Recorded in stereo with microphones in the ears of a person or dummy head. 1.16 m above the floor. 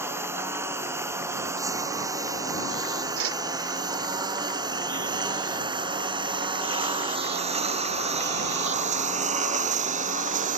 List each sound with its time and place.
0.0 s a lawn mower: 5° right (ahead or behind); by 10.6 s 35° right (ahead or behind)
3.2 s a whoosh: 80° right